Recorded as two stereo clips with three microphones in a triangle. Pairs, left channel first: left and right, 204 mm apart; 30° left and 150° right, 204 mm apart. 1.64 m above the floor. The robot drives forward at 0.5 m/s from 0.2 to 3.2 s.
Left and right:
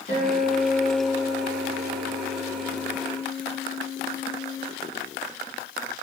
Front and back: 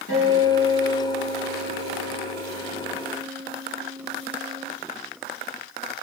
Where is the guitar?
40° left, 5.5 m; by 4.7 s 50° left, 4.5 m.